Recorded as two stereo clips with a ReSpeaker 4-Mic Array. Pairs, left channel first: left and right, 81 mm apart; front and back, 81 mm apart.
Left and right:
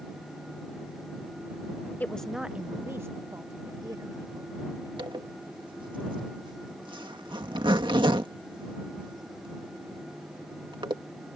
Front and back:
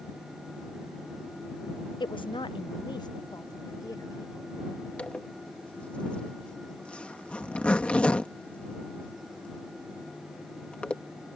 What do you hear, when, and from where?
2.0 s a woman speaking: 20° left; by 4.9 s 50° right
5.0 s a zipper: 75° right